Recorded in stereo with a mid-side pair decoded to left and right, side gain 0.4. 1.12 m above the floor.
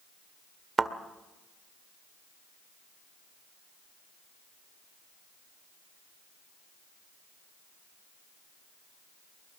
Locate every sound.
0.8 s a thud: 40° right, 1.7 m